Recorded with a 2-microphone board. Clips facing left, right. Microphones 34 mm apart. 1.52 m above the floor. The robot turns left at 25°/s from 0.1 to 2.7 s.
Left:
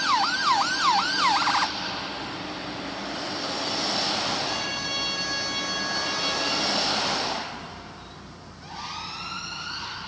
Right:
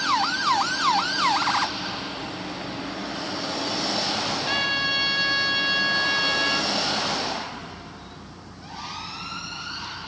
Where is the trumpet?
40° right (ahead or behind), 1.7 m.